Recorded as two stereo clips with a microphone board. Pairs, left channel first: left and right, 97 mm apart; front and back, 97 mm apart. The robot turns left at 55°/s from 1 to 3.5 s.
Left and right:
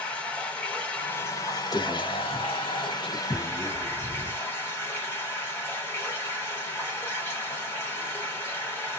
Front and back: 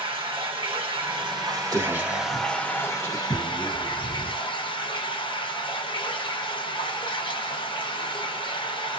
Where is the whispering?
135° left, 1.1 m; by 4.5 s 40° left, 1.1 m.